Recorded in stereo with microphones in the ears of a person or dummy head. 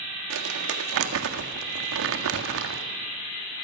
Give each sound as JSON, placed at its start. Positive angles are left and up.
{"t": 0.3, "sound": "crumpling", "side_deg": -65, "distance_m": 1.8}